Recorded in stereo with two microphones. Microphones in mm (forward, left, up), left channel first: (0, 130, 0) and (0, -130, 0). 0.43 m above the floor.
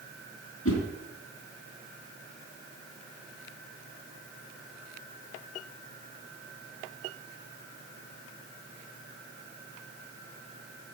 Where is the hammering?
I don't hear hammering.